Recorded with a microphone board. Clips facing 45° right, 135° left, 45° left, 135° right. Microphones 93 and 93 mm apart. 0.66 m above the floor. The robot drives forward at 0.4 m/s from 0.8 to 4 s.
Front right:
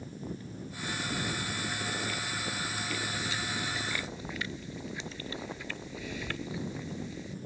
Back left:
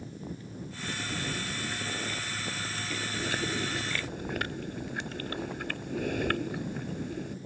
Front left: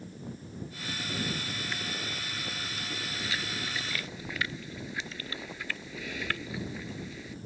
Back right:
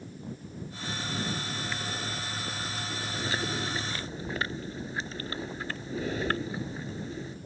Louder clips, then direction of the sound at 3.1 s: Back left 3 dB, back right 6 dB; 170° left.